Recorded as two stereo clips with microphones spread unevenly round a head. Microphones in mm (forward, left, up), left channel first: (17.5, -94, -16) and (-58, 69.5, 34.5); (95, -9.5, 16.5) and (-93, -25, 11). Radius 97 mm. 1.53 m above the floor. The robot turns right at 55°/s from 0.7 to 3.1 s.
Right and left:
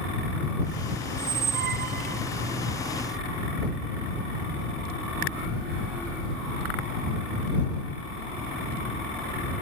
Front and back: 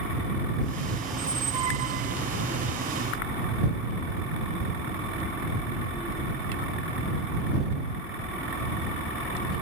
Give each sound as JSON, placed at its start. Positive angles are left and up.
{"t": 1.1, "sound": "a squeak", "azimuth_deg": 90}